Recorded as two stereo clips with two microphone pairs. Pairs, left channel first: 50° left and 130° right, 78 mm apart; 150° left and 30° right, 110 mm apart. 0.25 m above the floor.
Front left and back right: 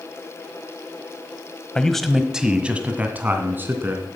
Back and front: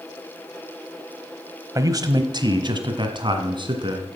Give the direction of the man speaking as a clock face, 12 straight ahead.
1 o'clock.